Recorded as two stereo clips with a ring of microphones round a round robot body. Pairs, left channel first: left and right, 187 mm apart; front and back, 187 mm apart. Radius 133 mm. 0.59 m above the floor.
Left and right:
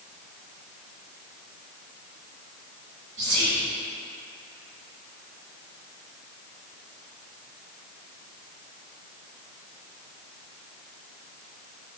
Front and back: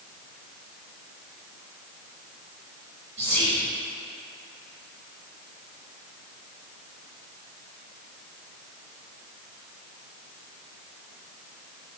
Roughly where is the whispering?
Behind right.